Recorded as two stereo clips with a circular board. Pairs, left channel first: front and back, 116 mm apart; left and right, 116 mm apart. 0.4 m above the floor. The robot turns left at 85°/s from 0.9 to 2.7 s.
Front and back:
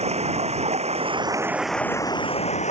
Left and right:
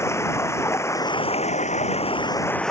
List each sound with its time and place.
0.0 s running water: 155° left; by 2.7 s 5° left